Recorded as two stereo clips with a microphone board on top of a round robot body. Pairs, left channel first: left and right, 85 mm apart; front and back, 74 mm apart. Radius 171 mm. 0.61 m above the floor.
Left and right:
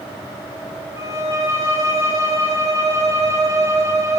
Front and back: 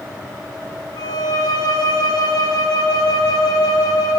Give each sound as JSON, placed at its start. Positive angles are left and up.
{"t": 1.0, "sound": "a violin", "azimuth_deg": -35, "distance_m": 0.6}